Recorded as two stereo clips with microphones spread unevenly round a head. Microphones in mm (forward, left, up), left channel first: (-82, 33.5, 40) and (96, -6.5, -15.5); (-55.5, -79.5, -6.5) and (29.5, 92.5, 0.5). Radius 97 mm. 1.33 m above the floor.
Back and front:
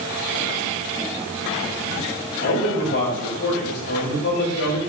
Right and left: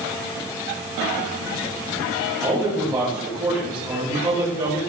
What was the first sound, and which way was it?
A man speaking, 140° left.